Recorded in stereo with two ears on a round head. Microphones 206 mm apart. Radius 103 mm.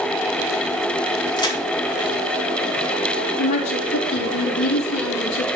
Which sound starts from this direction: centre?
A crack, at 1.4 s.